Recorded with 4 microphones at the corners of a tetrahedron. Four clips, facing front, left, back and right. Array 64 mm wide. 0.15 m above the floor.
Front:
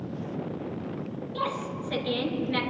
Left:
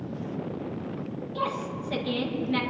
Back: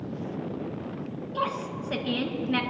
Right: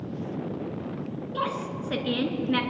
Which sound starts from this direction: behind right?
A woman speaking, at 1.3 s.